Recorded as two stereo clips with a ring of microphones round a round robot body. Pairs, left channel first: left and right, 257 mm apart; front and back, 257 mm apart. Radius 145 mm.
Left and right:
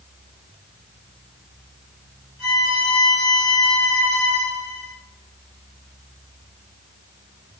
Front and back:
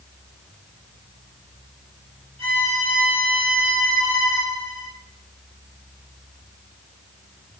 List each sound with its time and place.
2.4 s a violin: 110° left, 1.6 m